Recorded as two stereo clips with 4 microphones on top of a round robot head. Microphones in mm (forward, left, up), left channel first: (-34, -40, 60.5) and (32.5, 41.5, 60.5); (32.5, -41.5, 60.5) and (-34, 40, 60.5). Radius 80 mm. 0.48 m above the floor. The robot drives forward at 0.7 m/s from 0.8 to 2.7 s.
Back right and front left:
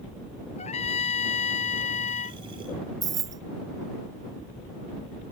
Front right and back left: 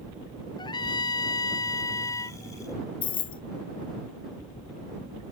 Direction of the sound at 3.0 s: 5° right.